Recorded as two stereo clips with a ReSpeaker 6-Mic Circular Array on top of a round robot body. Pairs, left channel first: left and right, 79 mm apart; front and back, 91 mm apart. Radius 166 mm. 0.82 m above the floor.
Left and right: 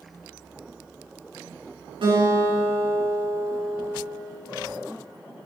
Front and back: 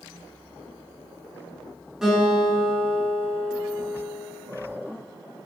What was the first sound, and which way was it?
A guitar, 95° right.